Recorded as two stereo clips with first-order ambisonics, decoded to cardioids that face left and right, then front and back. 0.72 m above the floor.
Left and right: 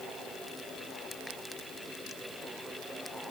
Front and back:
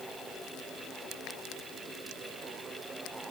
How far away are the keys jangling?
No keys jangling in this recording.